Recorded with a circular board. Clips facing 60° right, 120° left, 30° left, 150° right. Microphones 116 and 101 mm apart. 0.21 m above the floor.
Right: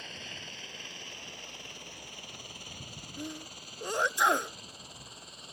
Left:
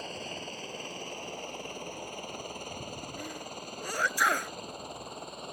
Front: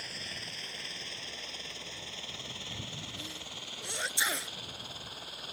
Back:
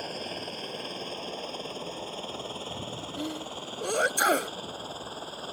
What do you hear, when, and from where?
0.0 s a helicopter: 170° left; by 5.5 s 155° left
3.2 s a sneeze: 125° right